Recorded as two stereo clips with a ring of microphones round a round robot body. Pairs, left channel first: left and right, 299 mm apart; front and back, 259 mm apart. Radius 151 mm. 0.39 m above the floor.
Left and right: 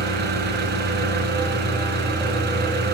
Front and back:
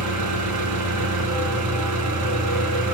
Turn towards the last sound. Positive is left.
turn(degrees=-150)